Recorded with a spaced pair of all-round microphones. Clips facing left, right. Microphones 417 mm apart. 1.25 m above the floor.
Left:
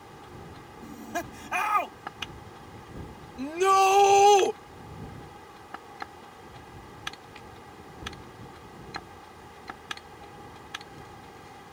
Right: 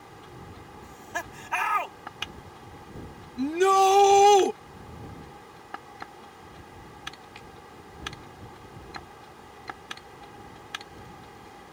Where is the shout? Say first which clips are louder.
Right 3 dB; 35° right (ahead or behind).